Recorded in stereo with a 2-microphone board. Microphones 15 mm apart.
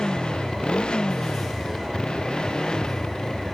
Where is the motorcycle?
85° left; by 3.6 s 45° left (ahead or behind).